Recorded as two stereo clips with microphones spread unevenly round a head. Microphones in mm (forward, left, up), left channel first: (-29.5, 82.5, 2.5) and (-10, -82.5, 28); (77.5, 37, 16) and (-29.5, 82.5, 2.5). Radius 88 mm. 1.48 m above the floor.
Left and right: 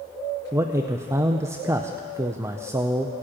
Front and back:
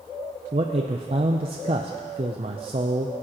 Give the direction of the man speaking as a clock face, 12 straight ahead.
5 o'clock.